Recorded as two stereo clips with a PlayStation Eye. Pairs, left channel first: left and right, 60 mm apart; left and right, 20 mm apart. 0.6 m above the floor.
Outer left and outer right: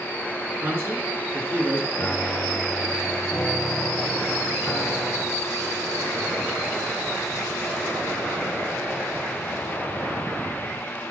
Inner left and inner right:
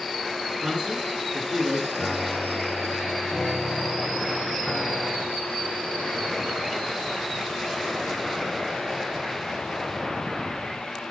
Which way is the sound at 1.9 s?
25° left (ahead or behind).